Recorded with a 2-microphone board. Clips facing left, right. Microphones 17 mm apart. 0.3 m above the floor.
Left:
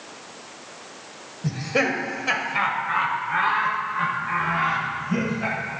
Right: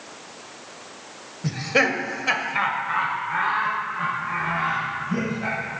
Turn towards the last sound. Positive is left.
turn(degrees=25)  # may be behind; listen again after turning